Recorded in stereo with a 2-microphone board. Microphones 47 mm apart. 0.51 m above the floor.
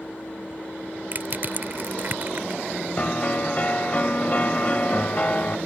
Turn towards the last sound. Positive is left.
turn(degrees=35)  # may be behind; listen again after turning